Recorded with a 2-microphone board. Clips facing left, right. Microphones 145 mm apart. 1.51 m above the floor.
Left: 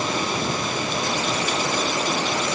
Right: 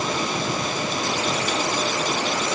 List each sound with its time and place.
Only background noise.